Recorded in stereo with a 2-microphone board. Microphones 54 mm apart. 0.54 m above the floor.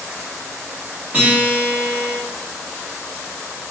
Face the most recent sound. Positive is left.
turn(degrees=-20)  # may be behind; listen again after turning